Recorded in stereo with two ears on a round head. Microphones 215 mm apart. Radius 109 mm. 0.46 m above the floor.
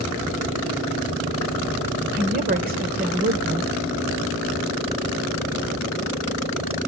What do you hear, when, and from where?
2.1 s a woman speaking: 40° right (ahead or behind), 1.5 m